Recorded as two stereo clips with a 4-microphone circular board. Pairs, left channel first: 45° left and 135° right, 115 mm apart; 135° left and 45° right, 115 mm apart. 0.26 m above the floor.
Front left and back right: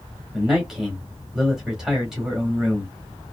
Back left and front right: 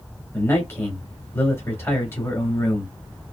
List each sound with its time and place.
0.3 s a man speaking: 145° left, 1.6 m